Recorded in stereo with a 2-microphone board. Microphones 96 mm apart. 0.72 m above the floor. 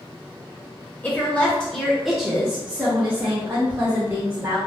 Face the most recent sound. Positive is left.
turn(degrees=-30)  # may be behind; listen again after turning